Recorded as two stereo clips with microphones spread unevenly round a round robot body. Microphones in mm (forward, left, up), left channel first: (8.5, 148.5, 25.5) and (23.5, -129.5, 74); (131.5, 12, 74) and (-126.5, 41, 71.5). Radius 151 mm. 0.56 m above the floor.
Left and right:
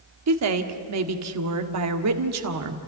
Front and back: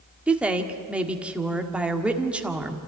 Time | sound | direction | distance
0.3 | a woman speaking | 105° right | 1.8 m